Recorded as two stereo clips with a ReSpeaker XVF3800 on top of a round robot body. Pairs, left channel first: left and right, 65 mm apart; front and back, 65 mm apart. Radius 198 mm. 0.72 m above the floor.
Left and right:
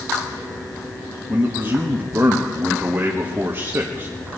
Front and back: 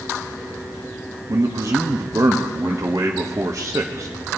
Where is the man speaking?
145° right, 1.5 m.